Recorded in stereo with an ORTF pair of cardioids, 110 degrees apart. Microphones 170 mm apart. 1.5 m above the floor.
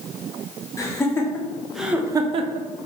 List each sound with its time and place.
0.8 s laughter: 20° left, 1.3 m; by 2.7 s 80° right, 0.5 m